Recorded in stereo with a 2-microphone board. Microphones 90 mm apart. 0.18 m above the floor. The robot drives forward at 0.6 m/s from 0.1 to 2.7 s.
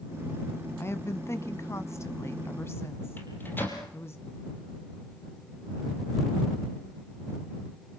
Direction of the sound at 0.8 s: 30° left (ahead or behind).